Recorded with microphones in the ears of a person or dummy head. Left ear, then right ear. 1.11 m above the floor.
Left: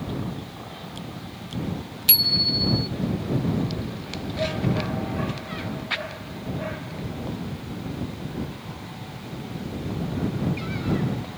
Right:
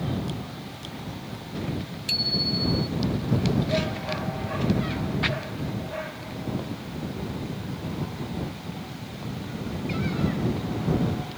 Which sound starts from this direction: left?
A bicycle bell, at 2.1 s.